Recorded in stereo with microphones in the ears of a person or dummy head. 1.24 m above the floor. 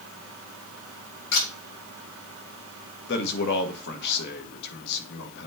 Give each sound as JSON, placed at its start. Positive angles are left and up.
{"t": 1.3, "sound": "a camera shutter", "side_deg": 65, "distance_m": 5.0}
{"t": 3.1, "sound": "a man speaking", "side_deg": 60, "distance_m": 1.1}